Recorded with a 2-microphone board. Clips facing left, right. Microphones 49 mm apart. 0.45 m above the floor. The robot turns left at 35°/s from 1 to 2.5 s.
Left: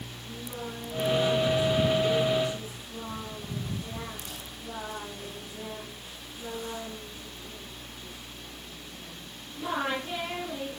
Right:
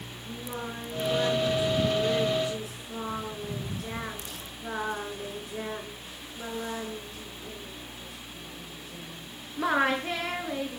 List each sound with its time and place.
0.3 s singing: 35° right, 7.5 m; by 10.8 s 85° right, 7.5 m